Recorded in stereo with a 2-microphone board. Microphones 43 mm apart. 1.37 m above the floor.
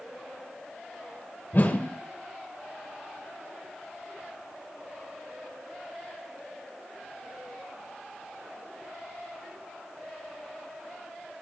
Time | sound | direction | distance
1.5 | a whoosh | 45° left (ahead or behind) | 2 m